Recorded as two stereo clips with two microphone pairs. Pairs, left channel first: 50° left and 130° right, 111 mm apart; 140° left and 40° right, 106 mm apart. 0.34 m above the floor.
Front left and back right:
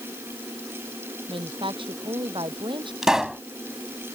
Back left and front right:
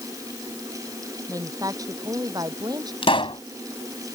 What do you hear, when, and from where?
1.3 s a woman speaking: 95° right; by 2.9 s 90° right
3.0 s a pop: 145° left